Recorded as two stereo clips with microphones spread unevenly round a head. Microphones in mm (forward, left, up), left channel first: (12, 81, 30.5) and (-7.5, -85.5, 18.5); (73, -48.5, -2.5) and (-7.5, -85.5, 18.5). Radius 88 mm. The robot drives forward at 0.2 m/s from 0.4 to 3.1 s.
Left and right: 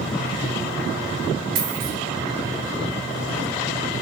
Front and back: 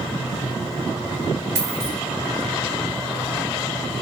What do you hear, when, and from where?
1.6 s a dropped coin: 135° right, 1.4 m